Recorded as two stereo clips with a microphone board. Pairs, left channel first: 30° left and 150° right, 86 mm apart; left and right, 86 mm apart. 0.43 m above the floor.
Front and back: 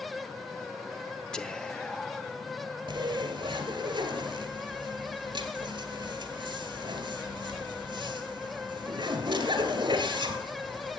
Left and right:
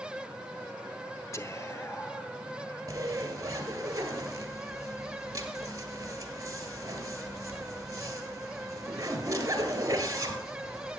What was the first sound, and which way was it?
Whispering, 100° left.